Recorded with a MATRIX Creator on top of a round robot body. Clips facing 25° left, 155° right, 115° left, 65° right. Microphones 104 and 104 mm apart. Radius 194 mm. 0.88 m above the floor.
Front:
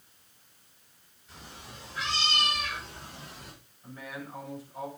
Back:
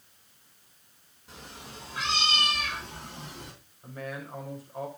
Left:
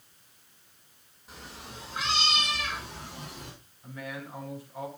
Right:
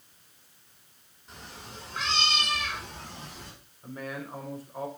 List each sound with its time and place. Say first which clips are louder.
1.3 s a cat meowing: back 2 dB, even; 160° right, 5 m; by 3.5 s 170° right, 4 m
3.8 s a man speaking: back 3 dB, right 2 dB; 115° right, 4 m